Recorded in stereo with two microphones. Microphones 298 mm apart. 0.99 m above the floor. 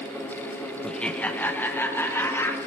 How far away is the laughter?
About 0.9 m.